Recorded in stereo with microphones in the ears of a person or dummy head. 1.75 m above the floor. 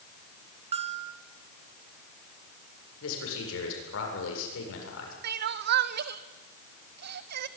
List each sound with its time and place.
0.7 s a bell: 35° right (ahead or behind), 1.8 m
3.0 s a man speaking: 80° left, 7.5 m
5.2 s crying: 60° right (ahead or behind), 1.1 m